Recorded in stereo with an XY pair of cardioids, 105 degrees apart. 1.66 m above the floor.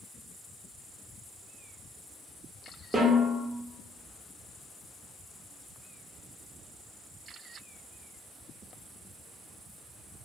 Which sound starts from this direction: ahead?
A snare drum, at 2.9 s.